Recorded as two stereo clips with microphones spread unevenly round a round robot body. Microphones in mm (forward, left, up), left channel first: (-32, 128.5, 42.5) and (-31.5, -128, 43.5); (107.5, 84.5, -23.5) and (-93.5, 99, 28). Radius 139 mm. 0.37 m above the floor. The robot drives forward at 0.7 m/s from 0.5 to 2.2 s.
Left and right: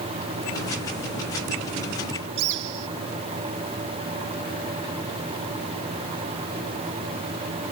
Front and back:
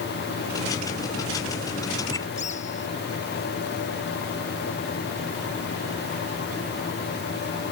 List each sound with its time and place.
2.4 s a bird: 70° right